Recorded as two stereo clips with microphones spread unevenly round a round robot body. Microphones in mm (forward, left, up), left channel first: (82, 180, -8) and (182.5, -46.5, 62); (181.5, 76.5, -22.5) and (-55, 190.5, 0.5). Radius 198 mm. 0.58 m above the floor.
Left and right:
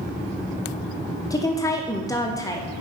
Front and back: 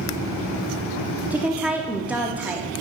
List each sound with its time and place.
1.3 s a woman speaking: 65° left, 0.7 m